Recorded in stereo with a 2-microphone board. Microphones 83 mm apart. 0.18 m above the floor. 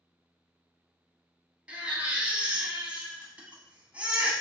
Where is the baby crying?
15° right (ahead or behind), 0.7 m.